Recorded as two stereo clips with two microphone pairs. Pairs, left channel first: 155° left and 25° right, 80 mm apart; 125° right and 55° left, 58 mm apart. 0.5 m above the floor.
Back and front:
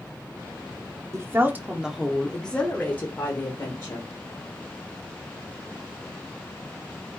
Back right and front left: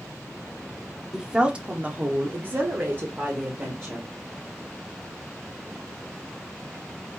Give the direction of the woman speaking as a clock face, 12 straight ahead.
1 o'clock.